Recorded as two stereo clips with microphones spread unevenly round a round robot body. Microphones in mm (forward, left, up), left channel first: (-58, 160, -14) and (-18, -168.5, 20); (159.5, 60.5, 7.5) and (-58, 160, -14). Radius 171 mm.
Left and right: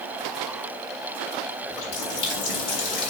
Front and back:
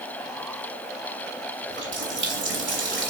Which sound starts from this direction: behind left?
A running tap, at 1.7 s.